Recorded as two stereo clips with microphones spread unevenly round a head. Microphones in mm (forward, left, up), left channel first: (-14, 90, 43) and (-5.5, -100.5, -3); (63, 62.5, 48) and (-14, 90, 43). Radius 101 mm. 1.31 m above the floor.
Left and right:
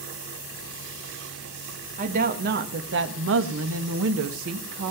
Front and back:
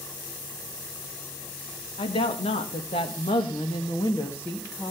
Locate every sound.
2.0 s a woman speaking: 35° right, 1.8 m; by 4.9 s 105° right, 1.7 m